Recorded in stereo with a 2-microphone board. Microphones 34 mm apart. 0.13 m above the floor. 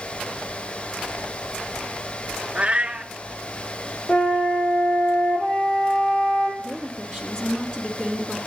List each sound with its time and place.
2.5 s a cat meowing: 35° right (ahead or behind), 0.8 m
4.1 s a flute: 65° left (ahead or behind), 4.5 m
6.6 s a woman speaking: 15° left (ahead or behind), 1.7 m